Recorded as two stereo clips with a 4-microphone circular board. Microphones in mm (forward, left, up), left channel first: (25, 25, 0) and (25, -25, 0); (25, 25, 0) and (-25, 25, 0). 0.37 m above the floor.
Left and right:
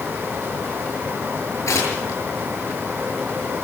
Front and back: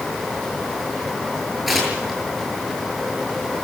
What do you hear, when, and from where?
1.7 s tearing paper: 90° left, 8 m